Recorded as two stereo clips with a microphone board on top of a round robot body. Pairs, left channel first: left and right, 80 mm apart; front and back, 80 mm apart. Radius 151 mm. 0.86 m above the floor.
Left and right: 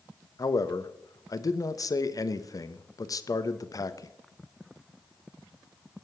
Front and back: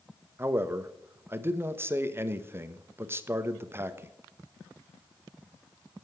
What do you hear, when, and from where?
0.4 s a man speaking: 125° left, 1.3 m